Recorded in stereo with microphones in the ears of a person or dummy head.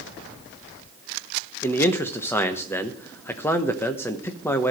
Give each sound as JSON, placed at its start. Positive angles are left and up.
{"t": 1.6, "sound": "a man speaking", "side_deg": 20, "distance_m": 1.0}